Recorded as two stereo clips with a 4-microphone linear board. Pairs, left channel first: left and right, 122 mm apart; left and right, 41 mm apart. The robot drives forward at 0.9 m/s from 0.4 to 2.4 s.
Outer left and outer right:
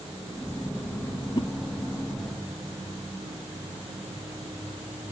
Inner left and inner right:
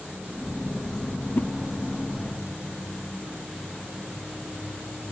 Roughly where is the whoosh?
Left.